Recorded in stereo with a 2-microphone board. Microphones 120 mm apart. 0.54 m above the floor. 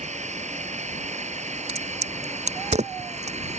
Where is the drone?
75° right (ahead or behind); by 3.6 s 70° right (ahead or behind).